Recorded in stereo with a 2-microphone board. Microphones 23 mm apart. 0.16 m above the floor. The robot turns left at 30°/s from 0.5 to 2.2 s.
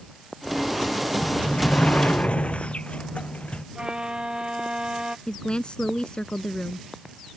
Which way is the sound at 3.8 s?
30° right (ahead or behind).